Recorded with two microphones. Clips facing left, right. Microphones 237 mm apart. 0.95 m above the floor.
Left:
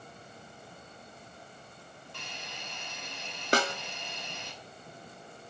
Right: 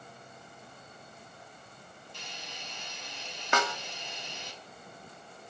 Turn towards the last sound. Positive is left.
turn(degrees=35)  # may be behind; listen again after turning